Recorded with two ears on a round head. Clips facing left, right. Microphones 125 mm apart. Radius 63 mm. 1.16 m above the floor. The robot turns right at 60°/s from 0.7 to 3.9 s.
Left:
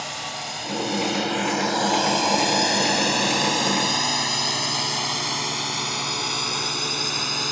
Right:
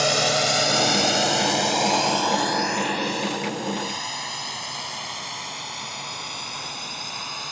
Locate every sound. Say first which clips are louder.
0.0 s a drone: right 11 dB; 85° right; by 7.5 s 65° left (ahead or behind)